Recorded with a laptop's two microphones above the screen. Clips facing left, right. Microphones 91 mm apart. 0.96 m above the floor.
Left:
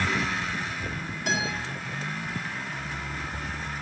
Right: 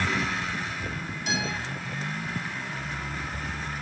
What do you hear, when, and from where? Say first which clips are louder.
1.3 s a guitar: left 2 dB; 55° left (ahead or behind), 4 m